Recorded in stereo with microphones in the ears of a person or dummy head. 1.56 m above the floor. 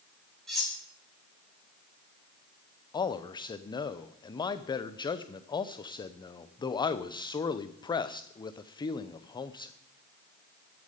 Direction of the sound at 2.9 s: 20° left (ahead or behind).